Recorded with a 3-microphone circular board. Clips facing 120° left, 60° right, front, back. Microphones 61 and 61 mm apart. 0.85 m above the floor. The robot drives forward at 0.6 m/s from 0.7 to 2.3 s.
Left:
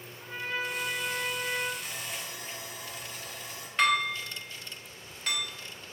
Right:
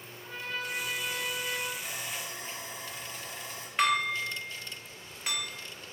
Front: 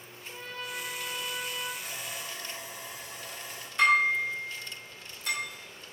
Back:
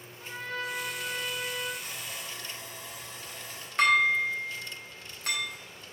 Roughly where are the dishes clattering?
Behind right.